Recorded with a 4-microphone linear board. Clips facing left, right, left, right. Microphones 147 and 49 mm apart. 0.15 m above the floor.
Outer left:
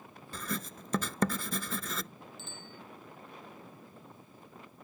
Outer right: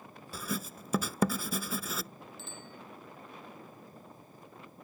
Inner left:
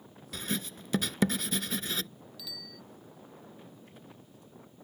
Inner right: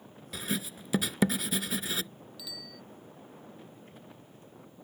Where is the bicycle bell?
Centre (ahead or behind).